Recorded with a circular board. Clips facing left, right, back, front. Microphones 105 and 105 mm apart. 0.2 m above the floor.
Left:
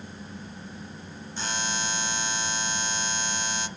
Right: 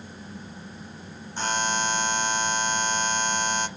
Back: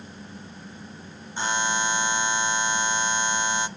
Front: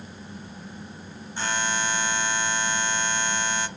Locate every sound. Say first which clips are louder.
1.4 s a buzzer: right 6 dB, back 2 dB; 115° right, 1.0 m